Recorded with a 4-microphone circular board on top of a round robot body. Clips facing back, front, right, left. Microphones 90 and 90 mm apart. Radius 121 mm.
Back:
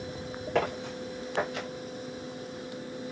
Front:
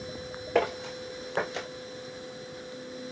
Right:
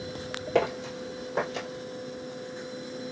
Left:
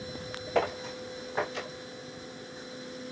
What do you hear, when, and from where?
0.6 s footsteps: 85° right, 2.5 m; by 1.7 s 60° right, 2.5 m